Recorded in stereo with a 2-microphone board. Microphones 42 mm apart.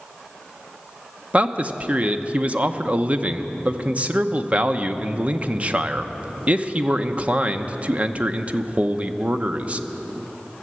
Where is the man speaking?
35° right (ahead or behind), 0.8 m.